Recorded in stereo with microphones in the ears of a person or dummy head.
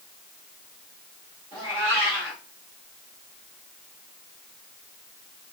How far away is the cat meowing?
About 2.0 m.